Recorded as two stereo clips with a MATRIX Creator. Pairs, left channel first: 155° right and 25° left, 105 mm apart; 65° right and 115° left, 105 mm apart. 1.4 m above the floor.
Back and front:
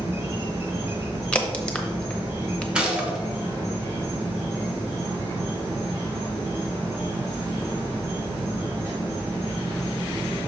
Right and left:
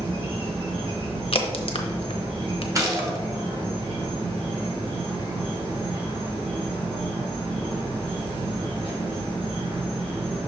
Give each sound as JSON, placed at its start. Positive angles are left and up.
{"t": 0.0, "sound": "an insect", "azimuth_deg": 85, "distance_m": 3.0}
{"t": 1.3, "sound": "a crack", "azimuth_deg": -80, "distance_m": 0.8}
{"t": 2.8, "sound": "a gunshot", "azimuth_deg": 95, "distance_m": 1.2}